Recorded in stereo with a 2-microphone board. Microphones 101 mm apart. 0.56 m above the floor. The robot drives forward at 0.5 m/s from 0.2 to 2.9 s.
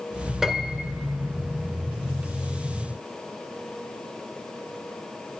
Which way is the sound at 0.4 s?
5° right (ahead or behind).